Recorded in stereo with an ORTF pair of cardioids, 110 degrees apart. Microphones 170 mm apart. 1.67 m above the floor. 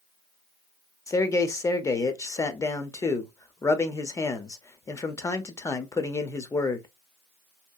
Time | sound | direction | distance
1.1 | a man speaking | 20° left | 0.6 m